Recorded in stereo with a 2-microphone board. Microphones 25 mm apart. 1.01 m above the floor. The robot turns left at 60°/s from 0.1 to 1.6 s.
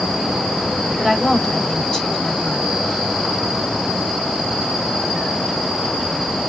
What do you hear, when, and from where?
1.0 s a woman speaking: 170° right, 3 m; by 2.7 s 155° left, 3 m